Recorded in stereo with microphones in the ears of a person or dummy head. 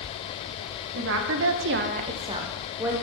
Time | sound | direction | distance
0.9 | a woman speaking | 55° right (ahead or behind) | 0.7 m